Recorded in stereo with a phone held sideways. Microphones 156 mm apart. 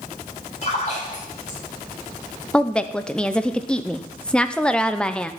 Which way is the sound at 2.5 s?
5° left (ahead or behind).